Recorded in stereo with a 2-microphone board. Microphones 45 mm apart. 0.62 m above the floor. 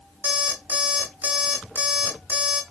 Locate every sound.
0.2 s an alarm clock: 45° right (ahead or behind), 0.9 m